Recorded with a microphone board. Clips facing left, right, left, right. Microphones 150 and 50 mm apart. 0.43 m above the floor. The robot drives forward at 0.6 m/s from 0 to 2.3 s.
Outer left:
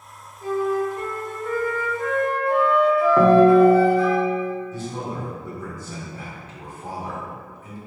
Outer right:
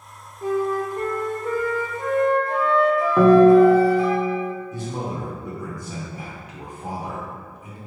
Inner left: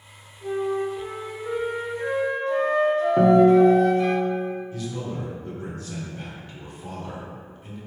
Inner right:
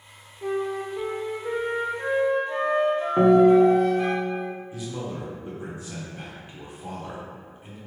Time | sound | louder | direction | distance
0.4 | a flute | even, inner left 2 dB | 60° right (ahead or behind) | 0.5 m
3.2 | a guitar | outer right 2 dB, even | 5° right (ahead or behind) | 0.7 m
4.7 | a man speaking | outer right 1 dB, inner left 1 dB | 15° right (ahead or behind) | 1.2 m